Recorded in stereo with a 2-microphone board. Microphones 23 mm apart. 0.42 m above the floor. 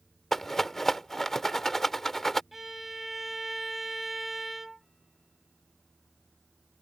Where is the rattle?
15° left (ahead or behind).